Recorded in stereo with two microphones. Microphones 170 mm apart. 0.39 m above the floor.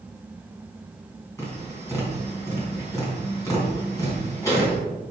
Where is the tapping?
15° left (ahead or behind), 3.5 m.